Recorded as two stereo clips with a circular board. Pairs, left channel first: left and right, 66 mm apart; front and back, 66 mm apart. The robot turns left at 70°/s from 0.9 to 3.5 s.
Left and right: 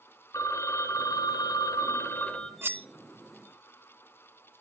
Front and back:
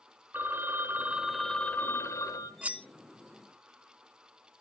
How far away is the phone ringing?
About 1.1 m.